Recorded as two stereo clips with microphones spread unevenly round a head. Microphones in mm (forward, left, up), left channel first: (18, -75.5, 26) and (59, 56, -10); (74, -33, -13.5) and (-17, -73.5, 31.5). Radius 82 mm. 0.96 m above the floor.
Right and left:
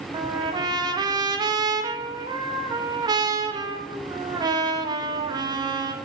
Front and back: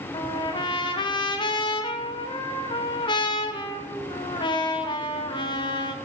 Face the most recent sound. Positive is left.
turn(degrees=20)